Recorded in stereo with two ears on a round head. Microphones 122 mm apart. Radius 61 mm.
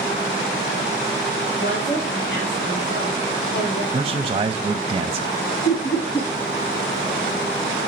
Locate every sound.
1.6 s a woman speaking: 65° left (ahead or behind), 3 m
3.9 s a man speaking: 30° right (ahead or behind), 0.7 m
5.7 s laughter: 45° left (ahead or behind), 1.5 m